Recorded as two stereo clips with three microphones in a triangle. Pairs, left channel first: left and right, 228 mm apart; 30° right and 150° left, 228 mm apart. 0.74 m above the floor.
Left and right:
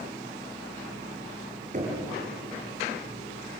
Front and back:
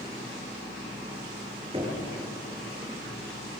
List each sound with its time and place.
1.7 s knocking: 145° right, 7.5 m